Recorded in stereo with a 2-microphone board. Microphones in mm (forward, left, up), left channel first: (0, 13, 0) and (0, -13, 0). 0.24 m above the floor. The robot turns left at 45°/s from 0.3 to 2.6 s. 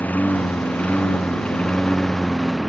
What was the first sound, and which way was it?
A lawn mower, 85° left.